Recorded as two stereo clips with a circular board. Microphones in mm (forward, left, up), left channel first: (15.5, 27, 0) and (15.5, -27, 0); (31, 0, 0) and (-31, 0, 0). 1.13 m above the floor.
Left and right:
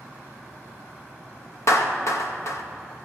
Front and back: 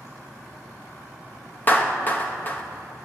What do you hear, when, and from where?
1.7 s a clap: 60° left, 0.8 m